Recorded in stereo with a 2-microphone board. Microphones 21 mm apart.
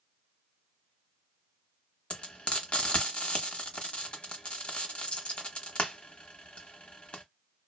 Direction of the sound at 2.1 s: 55° left (ahead or behind).